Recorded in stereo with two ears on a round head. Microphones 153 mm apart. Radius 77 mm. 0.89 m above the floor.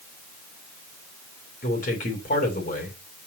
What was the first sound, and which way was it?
A man speaking, 50° left (ahead or behind).